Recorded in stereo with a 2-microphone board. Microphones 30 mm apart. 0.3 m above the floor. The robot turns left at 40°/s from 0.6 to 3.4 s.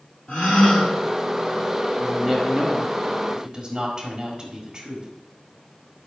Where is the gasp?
55° left (ahead or behind), 2.5 m; by 0.9 s 50° left (ahead or behind), 2.5 m.